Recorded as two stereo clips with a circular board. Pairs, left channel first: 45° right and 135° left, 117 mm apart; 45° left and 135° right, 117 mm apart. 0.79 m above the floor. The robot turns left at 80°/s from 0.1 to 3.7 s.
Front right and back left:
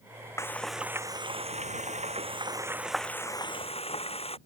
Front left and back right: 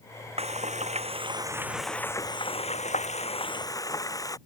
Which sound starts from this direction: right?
Frying, at 0.4 s.